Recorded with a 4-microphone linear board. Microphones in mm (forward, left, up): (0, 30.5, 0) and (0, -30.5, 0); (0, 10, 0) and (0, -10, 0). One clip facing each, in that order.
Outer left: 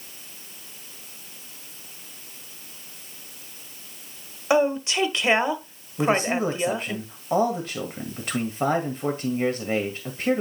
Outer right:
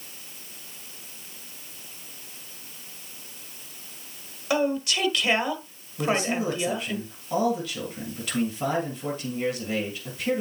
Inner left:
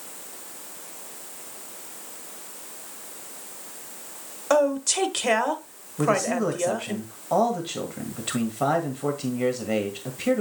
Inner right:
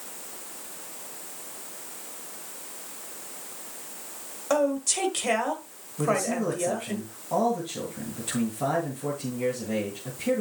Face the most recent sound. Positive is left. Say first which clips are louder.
# outer left 3 dB, inner left 3 dB
turn(degrees=40)  # may be behind; listen again after turning